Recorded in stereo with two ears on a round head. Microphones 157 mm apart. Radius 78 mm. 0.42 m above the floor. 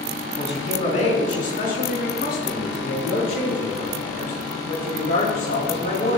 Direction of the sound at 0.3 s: 35° left (ahead or behind).